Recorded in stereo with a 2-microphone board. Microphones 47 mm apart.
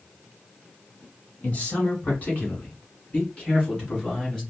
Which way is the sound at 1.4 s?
35° left (ahead or behind).